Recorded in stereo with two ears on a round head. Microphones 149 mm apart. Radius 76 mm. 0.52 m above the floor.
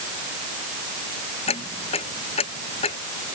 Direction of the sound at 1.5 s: 35° left (ahead or behind).